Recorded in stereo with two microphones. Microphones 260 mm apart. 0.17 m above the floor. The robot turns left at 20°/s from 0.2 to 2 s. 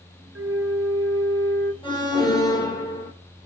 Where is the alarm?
20° left (ahead or behind), 4 m; by 3.1 s 15° left (ahead or behind), 4 m.